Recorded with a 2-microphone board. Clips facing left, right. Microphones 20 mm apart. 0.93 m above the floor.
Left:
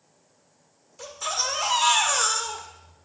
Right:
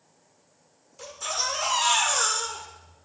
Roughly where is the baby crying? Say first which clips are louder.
Left 1 dB; centre.